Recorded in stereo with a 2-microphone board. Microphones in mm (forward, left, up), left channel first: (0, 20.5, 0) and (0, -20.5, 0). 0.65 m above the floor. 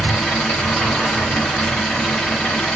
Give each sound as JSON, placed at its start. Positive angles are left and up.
{"t": 0.0, "sound": "an engine running", "side_deg": 20, "distance_m": 2.5}